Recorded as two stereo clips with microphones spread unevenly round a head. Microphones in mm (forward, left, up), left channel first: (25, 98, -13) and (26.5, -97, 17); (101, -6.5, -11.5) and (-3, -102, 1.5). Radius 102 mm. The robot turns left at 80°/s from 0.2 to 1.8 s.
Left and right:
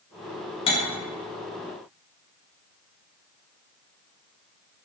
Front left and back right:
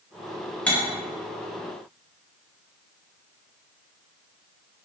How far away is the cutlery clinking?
About 0.6 m.